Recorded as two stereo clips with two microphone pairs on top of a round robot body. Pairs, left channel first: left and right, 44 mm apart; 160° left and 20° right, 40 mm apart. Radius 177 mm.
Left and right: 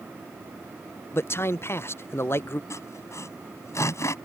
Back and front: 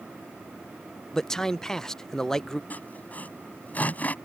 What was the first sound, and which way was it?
A man speaking, 80° left.